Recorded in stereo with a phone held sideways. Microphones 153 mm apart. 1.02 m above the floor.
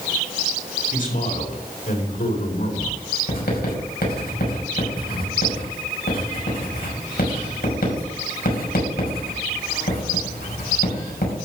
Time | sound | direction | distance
0.9 | a man speaking | 65° left (ahead or behind) | 4.5 m
3.3 | writing | 80° left | 5.5 m